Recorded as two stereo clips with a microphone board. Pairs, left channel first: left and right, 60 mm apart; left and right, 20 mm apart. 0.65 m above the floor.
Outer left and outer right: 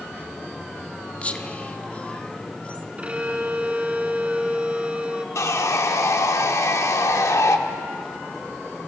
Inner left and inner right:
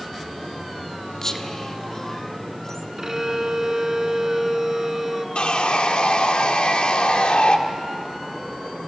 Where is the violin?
20° right (ahead or behind), 1.3 m.